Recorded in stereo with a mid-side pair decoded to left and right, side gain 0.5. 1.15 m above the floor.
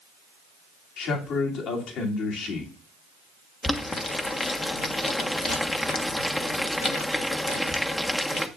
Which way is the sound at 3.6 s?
20° left.